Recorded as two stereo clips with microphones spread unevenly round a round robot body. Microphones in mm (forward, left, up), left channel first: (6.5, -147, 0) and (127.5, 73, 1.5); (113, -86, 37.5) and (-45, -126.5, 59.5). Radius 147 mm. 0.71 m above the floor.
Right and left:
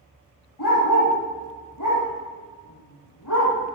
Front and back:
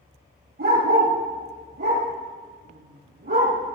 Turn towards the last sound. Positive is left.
turn(degrees=-145)